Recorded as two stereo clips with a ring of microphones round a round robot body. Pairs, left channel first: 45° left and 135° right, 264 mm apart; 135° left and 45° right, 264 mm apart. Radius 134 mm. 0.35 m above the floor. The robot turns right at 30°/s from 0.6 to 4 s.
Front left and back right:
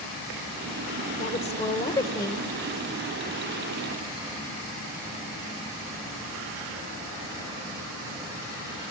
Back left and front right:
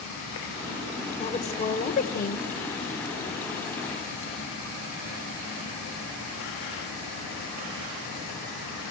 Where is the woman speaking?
85° left, 1.6 m; by 2.5 s 125° left, 1.6 m.